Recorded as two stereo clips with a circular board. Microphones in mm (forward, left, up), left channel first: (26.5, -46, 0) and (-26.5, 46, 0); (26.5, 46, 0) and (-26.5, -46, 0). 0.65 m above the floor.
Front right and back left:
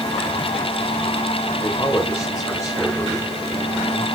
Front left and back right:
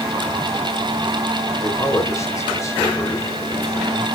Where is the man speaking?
Straight ahead, 3.5 m.